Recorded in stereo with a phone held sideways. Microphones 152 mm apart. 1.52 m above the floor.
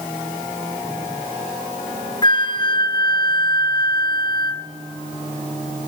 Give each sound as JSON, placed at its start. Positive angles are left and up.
{"t": 2.2, "sound": "a flute", "side_deg": 30, "distance_m": 0.7}